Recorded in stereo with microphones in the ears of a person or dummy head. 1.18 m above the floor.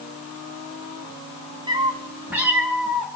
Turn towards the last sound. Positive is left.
turn(degrees=0)  # may be behind; listen again after turning